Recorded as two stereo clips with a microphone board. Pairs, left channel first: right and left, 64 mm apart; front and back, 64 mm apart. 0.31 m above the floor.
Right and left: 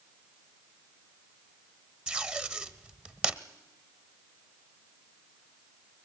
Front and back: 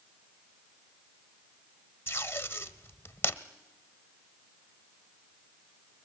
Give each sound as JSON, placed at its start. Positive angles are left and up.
{"t": 2.1, "sound": "tape being pulled", "azimuth_deg": 25, "distance_m": 0.9}